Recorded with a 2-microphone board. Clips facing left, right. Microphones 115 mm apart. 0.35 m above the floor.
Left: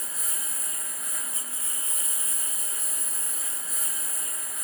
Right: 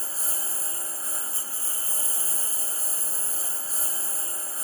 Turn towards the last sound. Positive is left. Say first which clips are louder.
# right 3 dB
turn(degrees=-30)  # may be behind; listen again after turning